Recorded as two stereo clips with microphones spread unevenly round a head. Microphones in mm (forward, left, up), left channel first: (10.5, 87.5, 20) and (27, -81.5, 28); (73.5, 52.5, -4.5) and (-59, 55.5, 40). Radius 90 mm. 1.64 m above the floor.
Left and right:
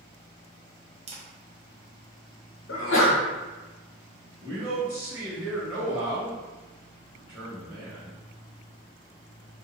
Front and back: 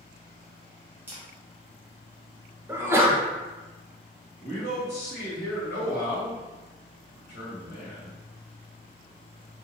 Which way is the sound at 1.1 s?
125° right.